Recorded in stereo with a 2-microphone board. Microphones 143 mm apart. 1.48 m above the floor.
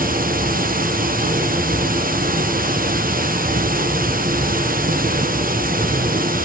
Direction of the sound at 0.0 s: 85° right.